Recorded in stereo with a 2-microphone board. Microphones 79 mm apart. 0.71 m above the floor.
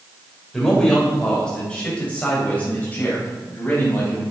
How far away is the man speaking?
About 3.5 m.